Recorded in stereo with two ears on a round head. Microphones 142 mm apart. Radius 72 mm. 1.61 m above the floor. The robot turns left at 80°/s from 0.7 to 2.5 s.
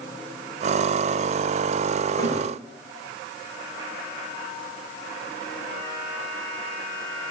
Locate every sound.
2.2 s a thud: 25° left (ahead or behind), 1.4 m